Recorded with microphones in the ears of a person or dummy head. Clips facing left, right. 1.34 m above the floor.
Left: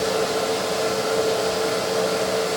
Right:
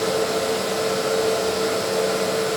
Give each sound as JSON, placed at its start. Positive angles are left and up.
{"t": 0.0, "sound": "a fan", "side_deg": 0, "distance_m": 0.8}